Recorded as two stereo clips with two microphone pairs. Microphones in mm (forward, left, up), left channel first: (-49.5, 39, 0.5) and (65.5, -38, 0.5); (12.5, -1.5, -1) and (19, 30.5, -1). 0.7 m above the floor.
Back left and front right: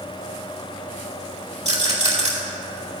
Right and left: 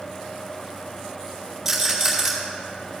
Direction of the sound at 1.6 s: 5° right.